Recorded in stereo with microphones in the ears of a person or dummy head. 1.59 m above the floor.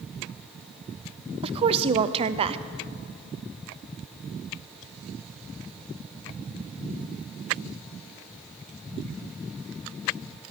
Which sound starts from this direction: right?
A woman speaking, at 1.4 s.